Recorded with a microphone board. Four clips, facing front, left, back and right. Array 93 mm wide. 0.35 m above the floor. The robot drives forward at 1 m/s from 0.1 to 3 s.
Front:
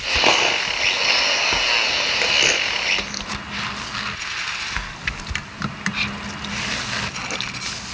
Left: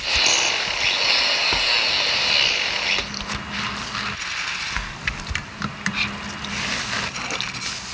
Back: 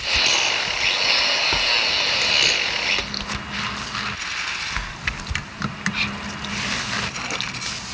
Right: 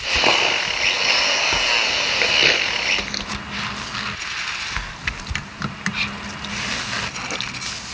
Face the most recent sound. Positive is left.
turn(degrees=-80)